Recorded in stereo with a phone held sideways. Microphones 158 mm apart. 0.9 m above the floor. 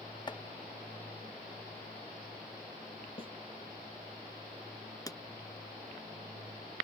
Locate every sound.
0.3 s chopping: 25° left (ahead or behind)
3.2 s a snare drum: 35° left (ahead or behind)
5.1 s a pop: 25° left (ahead or behind)